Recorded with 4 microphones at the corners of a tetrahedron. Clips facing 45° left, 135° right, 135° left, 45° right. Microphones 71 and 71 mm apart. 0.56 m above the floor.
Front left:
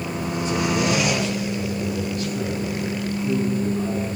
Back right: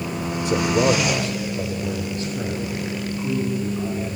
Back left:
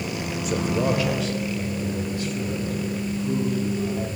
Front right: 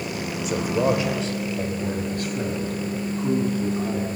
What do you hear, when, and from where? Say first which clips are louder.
0.5 s a man speaking: back right 4 dB, front right 2 dB; 135° right, 1.5 m; by 4.2 s 60° right, 5 m